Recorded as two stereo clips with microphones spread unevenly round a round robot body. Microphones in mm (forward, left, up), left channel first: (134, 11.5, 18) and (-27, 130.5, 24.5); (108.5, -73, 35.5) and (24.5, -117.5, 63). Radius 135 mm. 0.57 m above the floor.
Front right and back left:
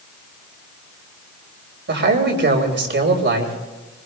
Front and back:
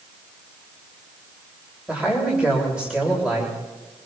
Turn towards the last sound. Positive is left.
turn(degrees=120)